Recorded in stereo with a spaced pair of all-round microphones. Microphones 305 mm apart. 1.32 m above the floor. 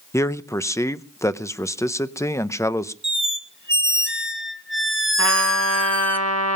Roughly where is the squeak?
Right.